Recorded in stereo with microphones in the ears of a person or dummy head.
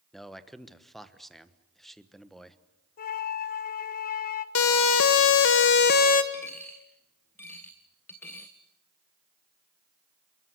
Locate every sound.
0.1 s a man speaking: centre (ahead or behind), 1.3 m
3.0 s a flute: 40° left (ahead or behind), 1.1 m
4.5 s a siren: 75° left (ahead or behind), 2.5 m; by 6.2 s 35° left (ahead or behind), 1.4 m
6.3 s a dropped coin: 15° left (ahead or behind), 0.7 m